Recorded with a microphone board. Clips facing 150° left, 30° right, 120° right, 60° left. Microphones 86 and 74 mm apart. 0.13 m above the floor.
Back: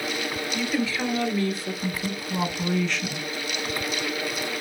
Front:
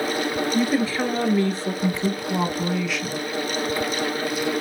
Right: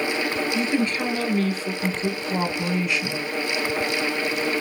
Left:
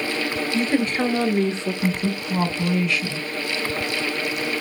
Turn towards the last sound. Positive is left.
turn(degrees=-135)